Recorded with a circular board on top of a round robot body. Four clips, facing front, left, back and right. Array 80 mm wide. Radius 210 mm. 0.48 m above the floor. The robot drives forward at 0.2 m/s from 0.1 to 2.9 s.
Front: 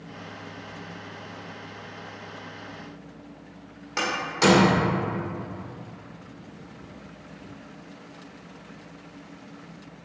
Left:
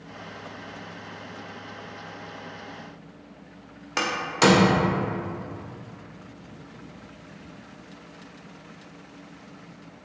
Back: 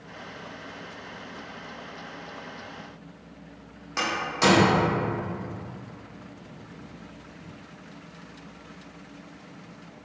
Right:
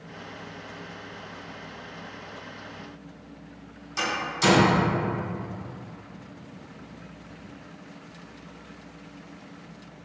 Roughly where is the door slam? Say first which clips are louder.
Left 4 dB, front 1 dB; left.